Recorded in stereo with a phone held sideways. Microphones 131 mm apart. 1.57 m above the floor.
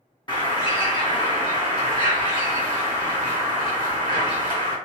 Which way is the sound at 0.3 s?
35° left (ahead or behind).